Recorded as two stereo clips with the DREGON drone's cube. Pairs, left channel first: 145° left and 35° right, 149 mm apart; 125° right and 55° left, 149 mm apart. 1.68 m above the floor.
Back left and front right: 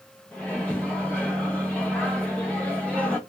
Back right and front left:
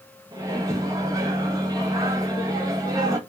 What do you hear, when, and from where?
0.3 s a microwave: 75° left, 0.8 m